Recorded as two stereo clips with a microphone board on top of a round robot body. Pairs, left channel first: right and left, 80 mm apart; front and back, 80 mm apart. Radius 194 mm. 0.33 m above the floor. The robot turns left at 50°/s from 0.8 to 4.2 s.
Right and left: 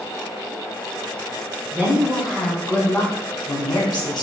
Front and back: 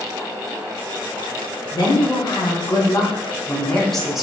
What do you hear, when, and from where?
1.7 s a woman speaking: 25° left, 1.7 m; by 4.2 s 100° right, 1.7 m